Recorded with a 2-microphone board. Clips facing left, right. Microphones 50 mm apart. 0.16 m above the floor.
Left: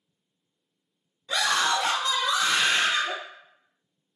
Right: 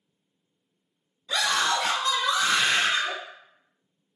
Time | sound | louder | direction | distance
1.3 | a scream | even | 30° left (ahead or behind) | 1.7 m